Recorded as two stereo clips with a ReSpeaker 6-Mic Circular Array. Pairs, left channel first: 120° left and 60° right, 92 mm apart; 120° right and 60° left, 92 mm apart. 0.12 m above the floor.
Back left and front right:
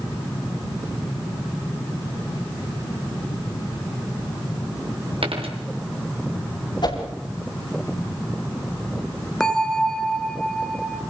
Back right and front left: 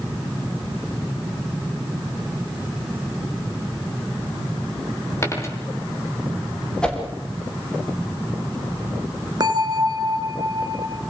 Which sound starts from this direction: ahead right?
A dropped coin, at 5.2 s.